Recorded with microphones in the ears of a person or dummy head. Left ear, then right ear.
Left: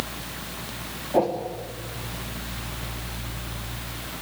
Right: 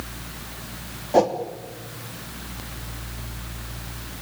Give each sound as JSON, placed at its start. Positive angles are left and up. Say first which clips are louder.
{"t": 1.1, "sound": "a whoosh", "louder": "right 4 dB", "side_deg": -80, "distance_m": 2.5}